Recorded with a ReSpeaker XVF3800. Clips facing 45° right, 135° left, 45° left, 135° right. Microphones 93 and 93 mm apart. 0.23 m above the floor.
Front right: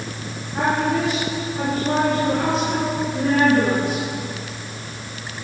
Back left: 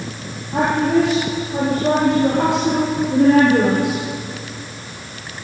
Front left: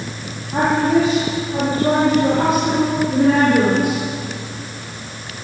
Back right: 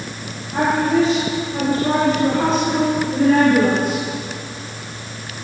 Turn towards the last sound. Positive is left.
turn(degrees=125)